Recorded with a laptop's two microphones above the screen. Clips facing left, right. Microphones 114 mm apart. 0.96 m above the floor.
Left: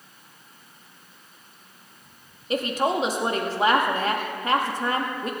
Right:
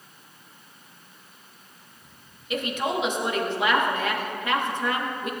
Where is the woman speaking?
35° left (ahead or behind), 1.6 m.